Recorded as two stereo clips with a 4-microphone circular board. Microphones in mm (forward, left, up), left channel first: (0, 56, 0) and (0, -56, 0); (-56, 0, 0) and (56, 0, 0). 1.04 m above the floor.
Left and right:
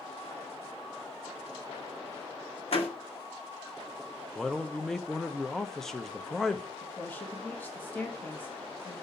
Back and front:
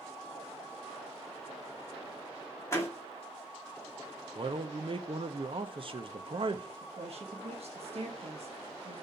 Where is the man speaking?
5° left, 0.7 m.